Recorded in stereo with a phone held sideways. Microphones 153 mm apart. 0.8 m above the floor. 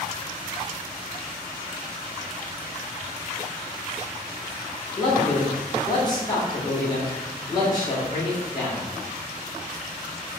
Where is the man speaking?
25° left (ahead or behind), 1.7 m.